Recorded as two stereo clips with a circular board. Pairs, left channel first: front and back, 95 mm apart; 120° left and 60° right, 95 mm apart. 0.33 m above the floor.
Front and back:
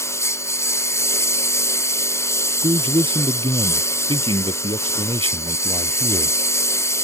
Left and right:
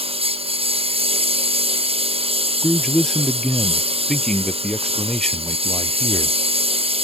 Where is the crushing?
I don't hear crushing.